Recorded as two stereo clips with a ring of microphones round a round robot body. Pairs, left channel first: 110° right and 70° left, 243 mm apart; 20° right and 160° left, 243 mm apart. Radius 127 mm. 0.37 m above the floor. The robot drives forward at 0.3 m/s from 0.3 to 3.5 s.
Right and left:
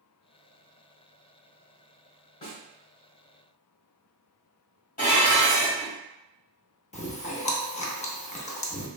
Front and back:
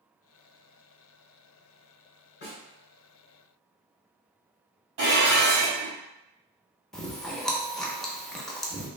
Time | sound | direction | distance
2.4 | a snare drum | 55° right | 1.3 m
5.0 | dishes clattering | 170° right | 1.7 m
6.9 | chewing | 110° right | 0.6 m